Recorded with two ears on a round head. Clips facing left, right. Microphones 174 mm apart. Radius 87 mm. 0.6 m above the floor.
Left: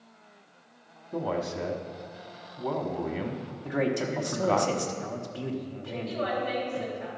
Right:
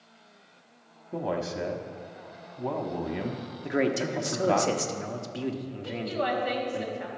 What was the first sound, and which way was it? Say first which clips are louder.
A man speaking: even; 10° right (ahead or behind).